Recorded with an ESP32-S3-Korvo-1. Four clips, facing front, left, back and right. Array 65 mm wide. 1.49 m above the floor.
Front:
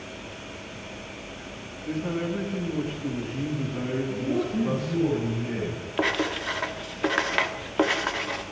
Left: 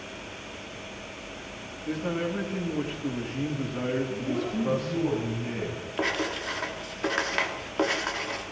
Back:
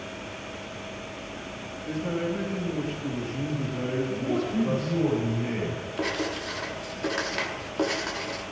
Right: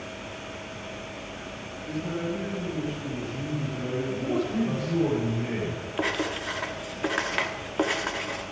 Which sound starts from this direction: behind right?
A man speaking, at 4.1 s.